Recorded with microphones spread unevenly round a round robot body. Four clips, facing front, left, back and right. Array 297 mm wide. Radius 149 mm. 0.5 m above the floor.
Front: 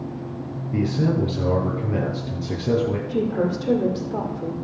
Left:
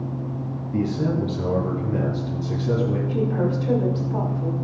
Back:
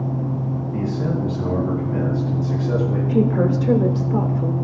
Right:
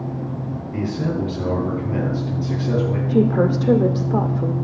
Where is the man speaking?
5° left, 7.5 m.